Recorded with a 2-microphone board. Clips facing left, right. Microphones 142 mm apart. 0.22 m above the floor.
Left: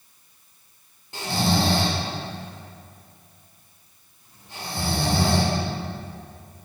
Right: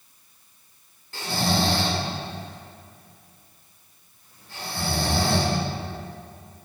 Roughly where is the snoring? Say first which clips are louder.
Left 2 dB; centre.